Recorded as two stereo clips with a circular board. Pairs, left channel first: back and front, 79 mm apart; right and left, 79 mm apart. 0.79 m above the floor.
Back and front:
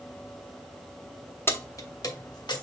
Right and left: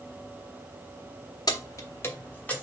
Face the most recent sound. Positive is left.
turn(degrees=-160)